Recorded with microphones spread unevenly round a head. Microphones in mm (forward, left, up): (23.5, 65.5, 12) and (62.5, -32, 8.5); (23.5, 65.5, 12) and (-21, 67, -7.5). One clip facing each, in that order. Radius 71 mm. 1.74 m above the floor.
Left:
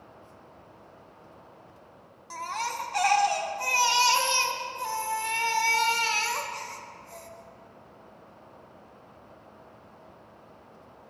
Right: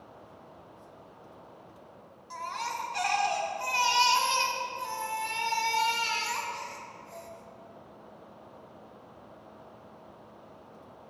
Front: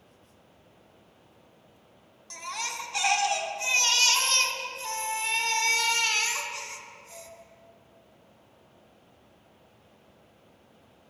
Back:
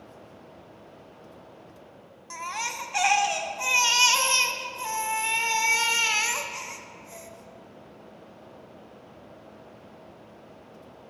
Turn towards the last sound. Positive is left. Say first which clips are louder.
# left 2 dB, back 3 dB
turn(degrees=110)